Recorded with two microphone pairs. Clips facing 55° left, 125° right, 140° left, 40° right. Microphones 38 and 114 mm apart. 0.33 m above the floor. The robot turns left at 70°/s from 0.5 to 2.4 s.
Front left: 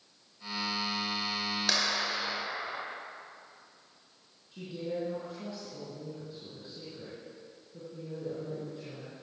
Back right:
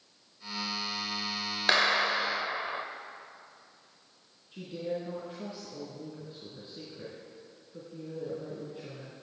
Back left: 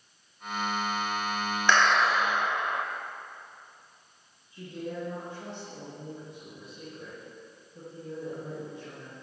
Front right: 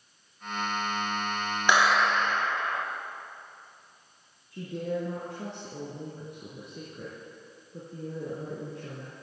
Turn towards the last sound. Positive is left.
turn(degrees=-60)